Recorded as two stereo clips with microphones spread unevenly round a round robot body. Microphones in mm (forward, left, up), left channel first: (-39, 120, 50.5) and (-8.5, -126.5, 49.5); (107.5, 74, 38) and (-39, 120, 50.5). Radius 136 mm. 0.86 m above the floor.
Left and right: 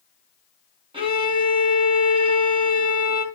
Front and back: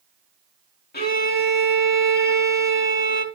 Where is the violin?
10° right, 2.5 m.